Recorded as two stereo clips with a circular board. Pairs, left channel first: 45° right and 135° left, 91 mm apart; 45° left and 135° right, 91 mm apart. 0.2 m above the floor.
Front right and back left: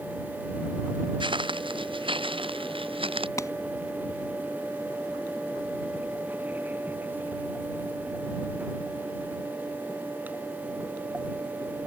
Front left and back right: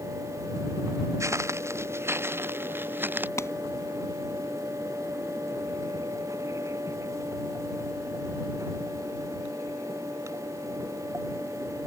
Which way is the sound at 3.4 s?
Straight ahead.